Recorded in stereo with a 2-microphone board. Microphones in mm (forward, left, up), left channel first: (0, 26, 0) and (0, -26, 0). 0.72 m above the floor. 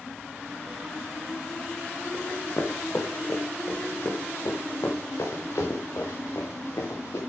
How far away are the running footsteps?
About 3 m.